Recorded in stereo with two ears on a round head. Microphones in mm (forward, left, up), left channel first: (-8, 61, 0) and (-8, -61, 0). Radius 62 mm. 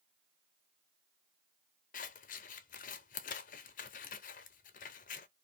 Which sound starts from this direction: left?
Scissors, at 1.9 s.